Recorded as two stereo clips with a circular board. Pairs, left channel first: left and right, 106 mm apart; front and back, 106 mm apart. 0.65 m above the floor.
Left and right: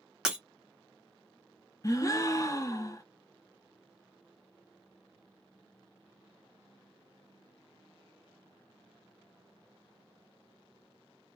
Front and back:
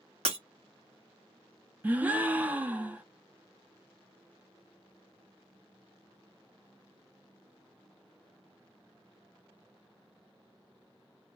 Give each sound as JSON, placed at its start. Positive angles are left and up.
{"t": 0.2, "sound": "breaking glass", "azimuth_deg": -175, "distance_m": 1.0}
{"t": 1.8, "sound": "a gasp", "azimuth_deg": 115, "distance_m": 0.5}